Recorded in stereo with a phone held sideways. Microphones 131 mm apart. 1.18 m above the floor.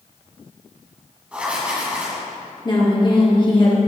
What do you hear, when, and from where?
1.3 s writing: 10° right (ahead or behind), 1.9 m
2.6 s a woman speaking: 35° left (ahead or behind), 1.7 m